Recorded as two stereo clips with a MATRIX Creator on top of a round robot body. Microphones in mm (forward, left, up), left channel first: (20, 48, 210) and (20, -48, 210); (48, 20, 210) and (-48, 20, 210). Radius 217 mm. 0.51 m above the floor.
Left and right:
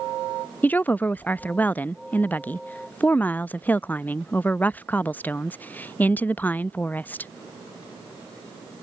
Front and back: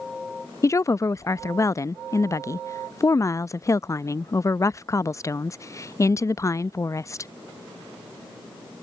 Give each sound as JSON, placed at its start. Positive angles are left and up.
{"t": 0.6, "sound": "a woman speaking", "azimuth_deg": 30}